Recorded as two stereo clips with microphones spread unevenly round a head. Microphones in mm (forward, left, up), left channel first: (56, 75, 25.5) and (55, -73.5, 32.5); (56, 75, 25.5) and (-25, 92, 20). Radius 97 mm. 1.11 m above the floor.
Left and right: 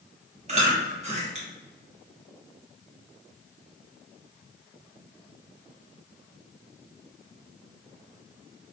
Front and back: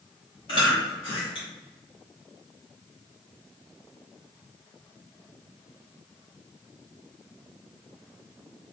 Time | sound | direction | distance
0.5 | chewing | 50° right | 1.3 m